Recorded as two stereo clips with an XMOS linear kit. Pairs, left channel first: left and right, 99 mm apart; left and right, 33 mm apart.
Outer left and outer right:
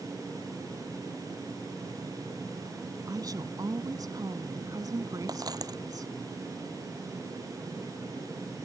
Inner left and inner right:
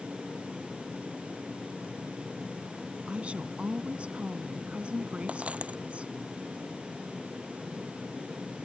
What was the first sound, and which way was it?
A woman speaking, 40° right (ahead or behind).